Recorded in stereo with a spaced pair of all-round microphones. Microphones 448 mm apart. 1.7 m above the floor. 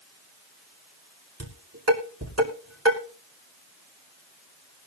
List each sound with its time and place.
1.4 s dishes clattering: 35° right (ahead or behind), 4.5 m